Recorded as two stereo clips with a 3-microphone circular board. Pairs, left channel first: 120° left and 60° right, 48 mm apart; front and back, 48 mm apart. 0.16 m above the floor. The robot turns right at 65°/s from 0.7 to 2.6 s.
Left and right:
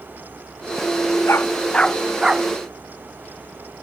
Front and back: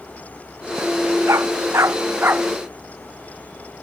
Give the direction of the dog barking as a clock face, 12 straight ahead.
7 o'clock.